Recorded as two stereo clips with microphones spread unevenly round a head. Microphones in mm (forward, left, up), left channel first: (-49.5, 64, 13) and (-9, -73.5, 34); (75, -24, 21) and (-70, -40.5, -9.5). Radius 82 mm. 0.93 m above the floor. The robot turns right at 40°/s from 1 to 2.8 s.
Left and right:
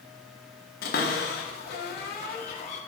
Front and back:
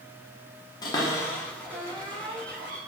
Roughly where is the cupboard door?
Left.